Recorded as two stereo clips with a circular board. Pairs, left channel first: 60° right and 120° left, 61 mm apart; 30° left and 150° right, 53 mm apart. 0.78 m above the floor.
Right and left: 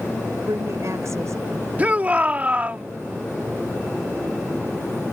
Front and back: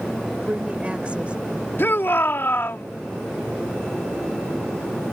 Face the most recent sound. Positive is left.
turn(degrees=60)